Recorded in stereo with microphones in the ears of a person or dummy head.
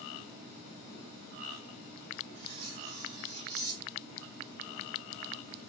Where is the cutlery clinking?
65° right (ahead or behind), 1.9 m.